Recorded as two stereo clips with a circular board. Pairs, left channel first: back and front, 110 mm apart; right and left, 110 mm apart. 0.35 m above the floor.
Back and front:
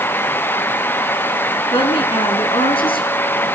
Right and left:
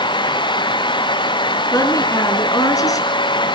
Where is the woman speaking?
145° right, 4 m.